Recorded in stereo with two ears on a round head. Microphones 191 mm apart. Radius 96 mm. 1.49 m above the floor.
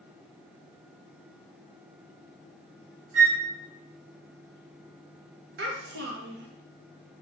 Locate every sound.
3.1 s a flute: 60° right (ahead or behind), 2 m
5.6 s a child speaking: 55° right (ahead or behind), 1.1 m